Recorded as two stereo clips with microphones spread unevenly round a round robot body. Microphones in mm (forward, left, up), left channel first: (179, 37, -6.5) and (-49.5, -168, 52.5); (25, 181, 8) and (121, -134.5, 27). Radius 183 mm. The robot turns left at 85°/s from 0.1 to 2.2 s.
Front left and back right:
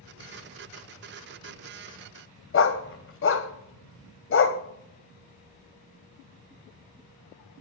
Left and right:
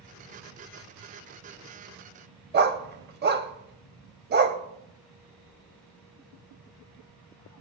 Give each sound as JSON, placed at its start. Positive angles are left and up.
{"t": 2.5, "sound": "a dog barking", "azimuth_deg": -10, "distance_m": 0.8}